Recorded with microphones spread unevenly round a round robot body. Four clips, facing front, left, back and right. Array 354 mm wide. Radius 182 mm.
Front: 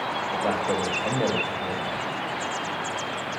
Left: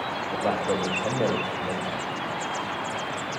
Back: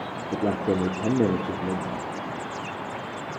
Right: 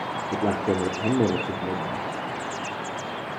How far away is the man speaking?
About 1.9 m.